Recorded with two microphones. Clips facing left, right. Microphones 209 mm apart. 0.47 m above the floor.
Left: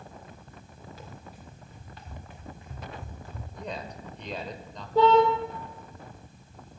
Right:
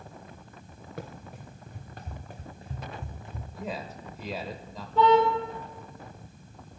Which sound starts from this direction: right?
Running footsteps, at 1.0 s.